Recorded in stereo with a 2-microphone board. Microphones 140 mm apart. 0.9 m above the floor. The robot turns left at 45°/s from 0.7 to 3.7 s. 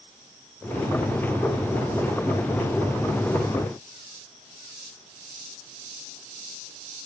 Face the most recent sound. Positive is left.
No sound to turn to.